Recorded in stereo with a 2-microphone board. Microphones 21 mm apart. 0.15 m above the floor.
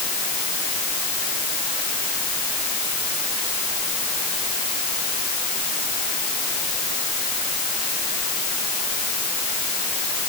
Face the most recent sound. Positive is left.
No sound to turn to.